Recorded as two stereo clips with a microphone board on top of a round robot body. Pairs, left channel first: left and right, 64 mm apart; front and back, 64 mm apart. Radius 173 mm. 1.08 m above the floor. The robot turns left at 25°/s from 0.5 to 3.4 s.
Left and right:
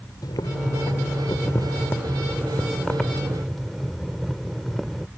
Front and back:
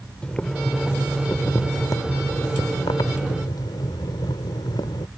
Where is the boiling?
75° left; by 5.1 s straight ahead.